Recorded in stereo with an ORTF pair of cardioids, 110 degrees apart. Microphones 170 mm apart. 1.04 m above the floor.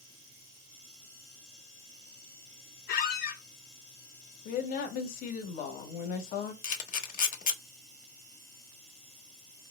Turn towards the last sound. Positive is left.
turn(degrees=50)